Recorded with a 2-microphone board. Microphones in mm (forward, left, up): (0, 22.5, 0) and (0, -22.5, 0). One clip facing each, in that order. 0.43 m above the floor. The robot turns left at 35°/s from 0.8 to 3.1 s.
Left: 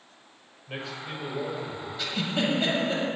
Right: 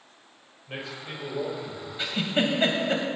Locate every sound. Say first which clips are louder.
0.7 s a man speaking: left 1 dB; straight ahead, 2.5 m; by 1.9 s 40° right, 2.5 m
2.0 s a giggle: right 3 dB; 30° right (ahead or behind), 1.8 m; by 3.0 s 60° right (ahead or behind), 1.8 m